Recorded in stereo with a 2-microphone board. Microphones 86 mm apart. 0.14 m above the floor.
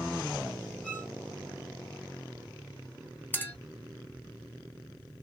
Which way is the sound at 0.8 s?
15° left (ahead or behind).